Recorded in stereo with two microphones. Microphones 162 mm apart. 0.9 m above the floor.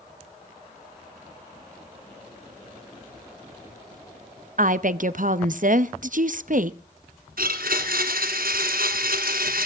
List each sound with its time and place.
4.6 s a woman speaking: 60° right (ahead or behind), 0.8 m
7.4 s a blender: 75° right (ahead or behind), 2.5 m